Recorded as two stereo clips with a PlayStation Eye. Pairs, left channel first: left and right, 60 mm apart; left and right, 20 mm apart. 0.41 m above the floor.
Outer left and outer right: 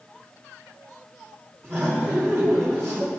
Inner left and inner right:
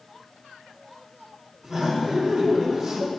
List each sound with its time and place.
1.6 s laughter: 45° right (ahead or behind), 5 m